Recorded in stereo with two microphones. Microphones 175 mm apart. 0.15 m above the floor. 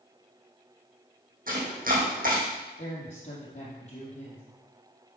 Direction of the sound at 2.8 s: 40° left (ahead or behind).